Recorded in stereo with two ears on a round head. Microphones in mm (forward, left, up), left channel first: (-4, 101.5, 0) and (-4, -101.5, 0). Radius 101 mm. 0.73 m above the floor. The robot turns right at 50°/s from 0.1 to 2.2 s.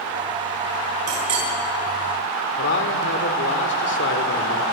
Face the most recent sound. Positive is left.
turn(degrees=55)  # may be behind; listen again after turning